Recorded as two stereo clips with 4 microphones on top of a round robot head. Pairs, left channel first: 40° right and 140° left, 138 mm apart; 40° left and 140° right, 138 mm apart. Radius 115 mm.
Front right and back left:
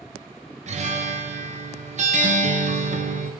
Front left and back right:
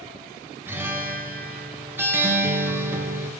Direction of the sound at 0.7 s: 150° left.